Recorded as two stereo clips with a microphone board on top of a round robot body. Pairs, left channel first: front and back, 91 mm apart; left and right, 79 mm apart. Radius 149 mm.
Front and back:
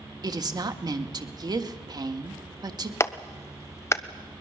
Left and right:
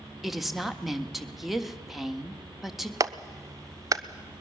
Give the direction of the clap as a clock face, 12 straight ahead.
2 o'clock.